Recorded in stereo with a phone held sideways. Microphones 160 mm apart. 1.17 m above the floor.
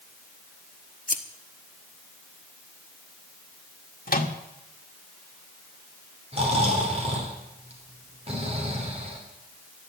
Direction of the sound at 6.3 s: 40° right (ahead or behind).